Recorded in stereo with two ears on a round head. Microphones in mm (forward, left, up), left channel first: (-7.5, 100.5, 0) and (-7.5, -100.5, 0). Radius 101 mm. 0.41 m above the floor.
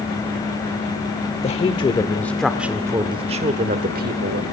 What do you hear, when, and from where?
1.4 s a woman speaking: 30° left (ahead or behind), 1.0 m; by 4.4 s 45° right (ahead or behind), 1.3 m